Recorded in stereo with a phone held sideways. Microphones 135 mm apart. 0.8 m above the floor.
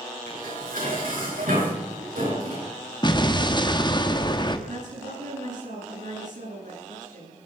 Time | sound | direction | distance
0.3 | dishes clattering | 80° right | 7.5 m
3.0 | an explosion | 35° left (ahead or behind) | 1.3 m
4.7 | a woman speaking | 75° right (ahead or behind) | 10 m